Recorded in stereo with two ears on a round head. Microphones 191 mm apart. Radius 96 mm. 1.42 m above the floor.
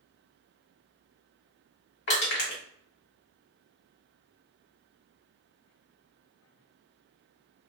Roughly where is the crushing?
Left.